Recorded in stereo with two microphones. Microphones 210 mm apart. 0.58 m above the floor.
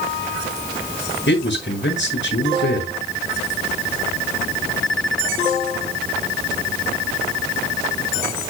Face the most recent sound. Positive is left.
turn(degrees=60)  # may be behind; listen again after turning